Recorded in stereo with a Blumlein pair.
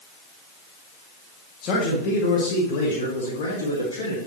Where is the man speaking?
35° left, 1.9 m; by 4.2 s 70° left, 3 m.